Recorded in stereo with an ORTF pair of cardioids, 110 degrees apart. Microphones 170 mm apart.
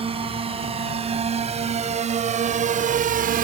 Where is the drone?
35° right; by 3.5 s 60° right.